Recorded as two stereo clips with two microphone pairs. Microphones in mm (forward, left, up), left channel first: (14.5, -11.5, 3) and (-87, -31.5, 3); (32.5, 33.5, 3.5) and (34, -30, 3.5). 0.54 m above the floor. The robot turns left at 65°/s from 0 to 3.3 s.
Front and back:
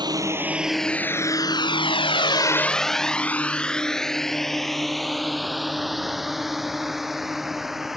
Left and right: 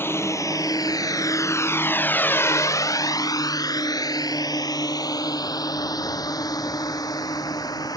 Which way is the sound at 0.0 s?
145° left.